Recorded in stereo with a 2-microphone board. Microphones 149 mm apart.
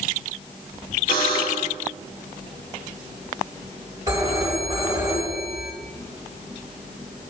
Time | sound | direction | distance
1.1 | a buzzer | 75° left (ahead or behind) | 3 m
4.1 | a phone ringing | 20° right (ahead or behind) | 5 m